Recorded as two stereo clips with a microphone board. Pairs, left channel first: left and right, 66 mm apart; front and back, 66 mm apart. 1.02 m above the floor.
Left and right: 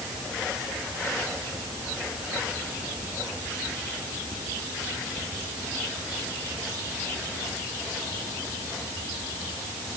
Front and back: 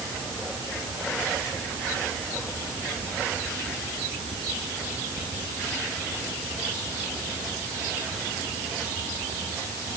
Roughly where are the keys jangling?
I don't hear keys jangling.